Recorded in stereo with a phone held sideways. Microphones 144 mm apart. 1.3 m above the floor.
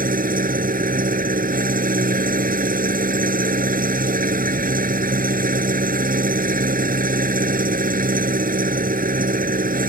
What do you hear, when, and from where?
0.0 s an engine running: 80° right